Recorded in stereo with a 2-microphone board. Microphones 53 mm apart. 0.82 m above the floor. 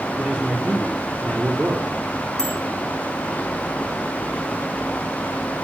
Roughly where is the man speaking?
Centre.